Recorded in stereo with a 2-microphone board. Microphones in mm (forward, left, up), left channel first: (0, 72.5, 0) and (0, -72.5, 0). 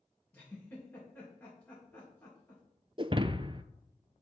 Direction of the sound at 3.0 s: 35° right (ahead or behind).